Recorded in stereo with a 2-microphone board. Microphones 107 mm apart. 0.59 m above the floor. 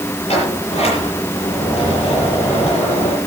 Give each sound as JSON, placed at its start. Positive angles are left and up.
{"t": 0.3, "sound": "a sliding door", "side_deg": 70, "distance_m": 8.0}